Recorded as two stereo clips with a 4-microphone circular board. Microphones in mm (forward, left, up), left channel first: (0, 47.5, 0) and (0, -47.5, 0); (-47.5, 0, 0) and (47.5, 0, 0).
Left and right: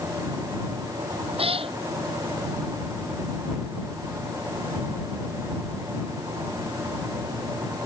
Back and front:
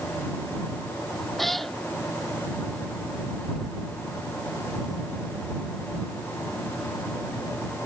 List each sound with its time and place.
1.4 s a cat meowing: 90° right